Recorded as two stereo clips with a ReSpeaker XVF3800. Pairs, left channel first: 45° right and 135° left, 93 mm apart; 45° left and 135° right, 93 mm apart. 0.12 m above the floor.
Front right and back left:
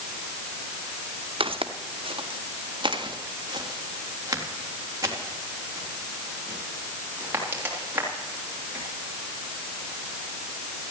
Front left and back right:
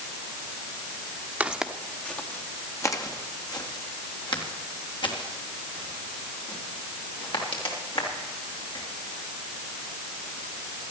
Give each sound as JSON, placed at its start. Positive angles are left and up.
{"t": 1.4, "sound": "footsteps", "azimuth_deg": 150, "distance_m": 1.4}